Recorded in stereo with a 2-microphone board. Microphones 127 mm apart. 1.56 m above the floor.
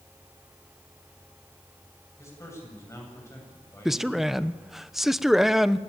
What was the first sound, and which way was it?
A man speaking, 20° left (ahead or behind).